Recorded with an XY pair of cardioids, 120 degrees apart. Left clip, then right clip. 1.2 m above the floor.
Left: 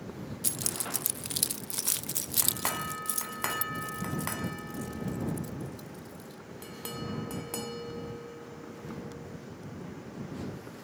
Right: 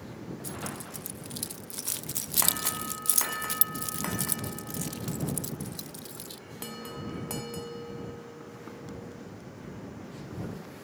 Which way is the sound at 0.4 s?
65° left.